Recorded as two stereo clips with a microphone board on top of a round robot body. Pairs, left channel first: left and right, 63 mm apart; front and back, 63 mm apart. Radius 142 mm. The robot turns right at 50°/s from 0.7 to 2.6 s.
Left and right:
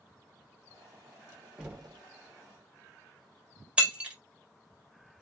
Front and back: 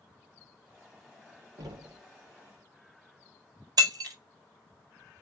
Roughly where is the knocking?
Behind.